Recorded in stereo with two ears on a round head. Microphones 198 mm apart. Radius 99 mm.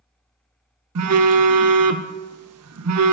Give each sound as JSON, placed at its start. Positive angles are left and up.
{"t": 0.9, "sound": "a phone buzzing", "side_deg": -75, "distance_m": 0.5}